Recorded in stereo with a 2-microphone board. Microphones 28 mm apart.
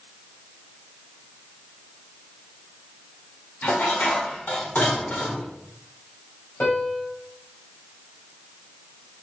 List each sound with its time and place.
3.6 s dishes clattering: 70° left (ahead or behind), 1.7 m
6.6 s a piano: 70° left (ahead or behind), 2 m